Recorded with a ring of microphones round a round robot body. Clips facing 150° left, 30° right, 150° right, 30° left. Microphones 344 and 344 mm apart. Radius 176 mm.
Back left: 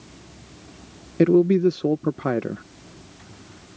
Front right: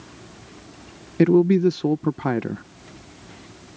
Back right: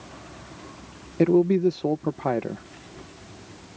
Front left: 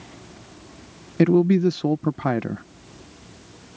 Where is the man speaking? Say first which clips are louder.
Even, front left 2 dB; 35° left.